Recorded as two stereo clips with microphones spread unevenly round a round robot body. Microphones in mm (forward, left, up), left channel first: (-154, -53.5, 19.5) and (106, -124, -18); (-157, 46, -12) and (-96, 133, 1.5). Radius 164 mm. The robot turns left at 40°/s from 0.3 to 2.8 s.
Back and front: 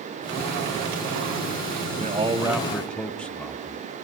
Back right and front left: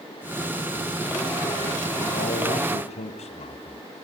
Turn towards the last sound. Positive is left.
turn(degrees=-105)